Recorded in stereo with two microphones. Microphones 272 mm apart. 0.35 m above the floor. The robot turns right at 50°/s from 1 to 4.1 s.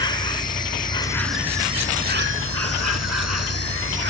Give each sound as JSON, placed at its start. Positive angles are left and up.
{"t": 0.0, "sound": "an insect", "azimuth_deg": 165}